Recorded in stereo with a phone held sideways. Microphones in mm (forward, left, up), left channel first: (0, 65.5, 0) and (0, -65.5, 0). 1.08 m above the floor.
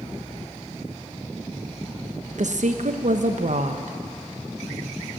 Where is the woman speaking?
65° right (ahead or behind), 1.0 m.